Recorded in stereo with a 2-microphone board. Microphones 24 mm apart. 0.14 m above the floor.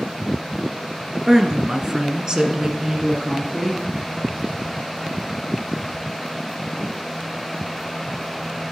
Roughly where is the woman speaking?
Centre.